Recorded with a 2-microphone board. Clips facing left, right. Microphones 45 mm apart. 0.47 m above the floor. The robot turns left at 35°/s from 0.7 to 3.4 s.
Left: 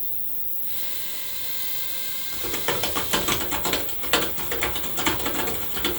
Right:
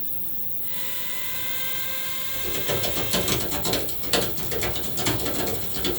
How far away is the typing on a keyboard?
About 1.4 m.